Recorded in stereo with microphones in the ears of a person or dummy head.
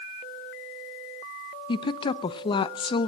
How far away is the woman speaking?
About 0.6 m.